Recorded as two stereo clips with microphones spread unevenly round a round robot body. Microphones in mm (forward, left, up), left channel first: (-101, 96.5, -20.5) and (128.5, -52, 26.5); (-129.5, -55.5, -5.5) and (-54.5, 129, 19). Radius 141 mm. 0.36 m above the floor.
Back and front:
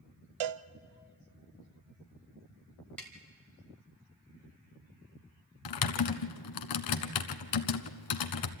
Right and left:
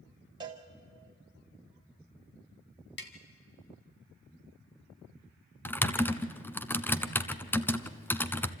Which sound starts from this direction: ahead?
A cowbell, at 0.4 s.